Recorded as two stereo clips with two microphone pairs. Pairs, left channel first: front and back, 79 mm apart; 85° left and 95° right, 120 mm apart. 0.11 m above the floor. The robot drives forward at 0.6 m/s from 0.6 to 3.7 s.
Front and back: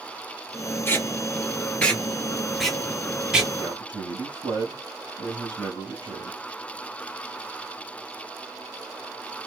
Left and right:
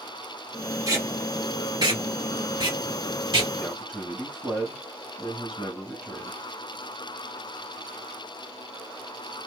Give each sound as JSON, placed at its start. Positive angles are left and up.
{"t": 0.9, "sound": "tape being pulled", "azimuth_deg": -50, "distance_m": 2.0}
{"t": 3.6, "sound": "a man speaking", "azimuth_deg": -175, "distance_m": 2.5}